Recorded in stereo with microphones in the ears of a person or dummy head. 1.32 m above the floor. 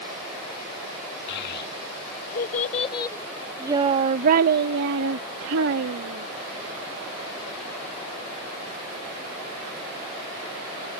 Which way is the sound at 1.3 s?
65° left (ahead or behind).